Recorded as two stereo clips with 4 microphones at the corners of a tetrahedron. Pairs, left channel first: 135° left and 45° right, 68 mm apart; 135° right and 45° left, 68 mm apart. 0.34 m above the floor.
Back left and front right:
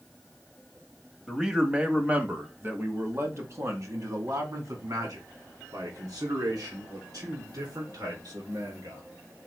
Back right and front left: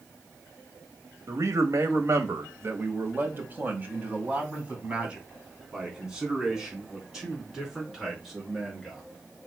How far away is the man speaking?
About 1.5 m.